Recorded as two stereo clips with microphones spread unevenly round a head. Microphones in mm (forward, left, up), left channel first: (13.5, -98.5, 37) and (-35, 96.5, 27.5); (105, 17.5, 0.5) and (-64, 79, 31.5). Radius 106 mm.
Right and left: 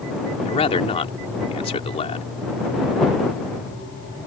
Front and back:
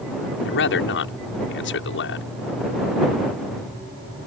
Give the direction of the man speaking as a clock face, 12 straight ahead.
12 o'clock.